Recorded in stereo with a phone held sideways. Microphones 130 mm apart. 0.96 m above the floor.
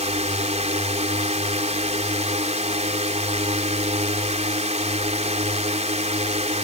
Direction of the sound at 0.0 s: 65° right (ahead or behind).